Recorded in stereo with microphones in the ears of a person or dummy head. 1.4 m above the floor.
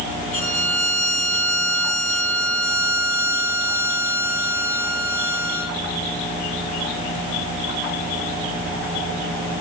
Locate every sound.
0.3 s a violin: 70° right (ahead or behind), 5.5 m